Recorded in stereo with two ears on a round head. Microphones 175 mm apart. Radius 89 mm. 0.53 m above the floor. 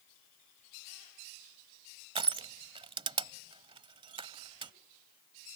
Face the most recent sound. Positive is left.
turn(degrees=-25)  # may be behind; listen again after turning